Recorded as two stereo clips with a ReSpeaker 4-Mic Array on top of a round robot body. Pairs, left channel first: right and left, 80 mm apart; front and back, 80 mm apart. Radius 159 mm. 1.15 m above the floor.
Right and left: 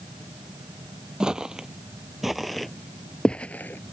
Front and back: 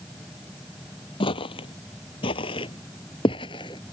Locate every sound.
1.2 s footsteps: 10° left; by 3.9 s 30° right